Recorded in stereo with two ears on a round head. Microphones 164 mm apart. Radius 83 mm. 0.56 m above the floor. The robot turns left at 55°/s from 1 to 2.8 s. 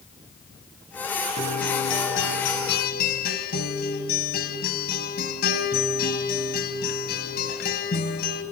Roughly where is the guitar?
Behind left.